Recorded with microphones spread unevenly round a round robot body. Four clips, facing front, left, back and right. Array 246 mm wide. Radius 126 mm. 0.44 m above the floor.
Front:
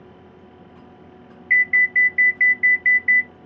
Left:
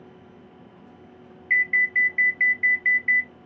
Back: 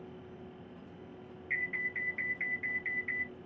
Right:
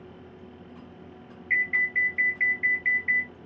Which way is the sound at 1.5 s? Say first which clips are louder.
Left 4 dB, front 19 dB; 10° left.